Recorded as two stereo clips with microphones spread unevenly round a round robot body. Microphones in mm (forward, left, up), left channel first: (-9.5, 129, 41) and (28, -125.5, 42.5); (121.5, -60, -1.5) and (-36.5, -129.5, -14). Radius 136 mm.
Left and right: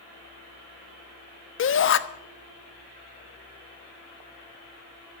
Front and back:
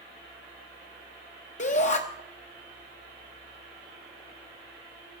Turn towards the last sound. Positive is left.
turn(degrees=75)